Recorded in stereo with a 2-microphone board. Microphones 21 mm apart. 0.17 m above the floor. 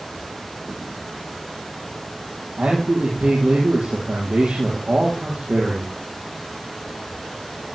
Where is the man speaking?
60° right (ahead or behind), 4.5 m.